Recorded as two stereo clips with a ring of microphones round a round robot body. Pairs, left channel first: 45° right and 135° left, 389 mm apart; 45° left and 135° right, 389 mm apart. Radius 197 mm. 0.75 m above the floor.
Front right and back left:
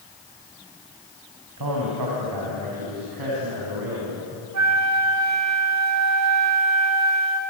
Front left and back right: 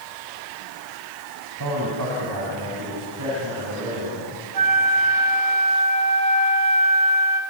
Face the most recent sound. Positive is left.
turn(degrees=-175)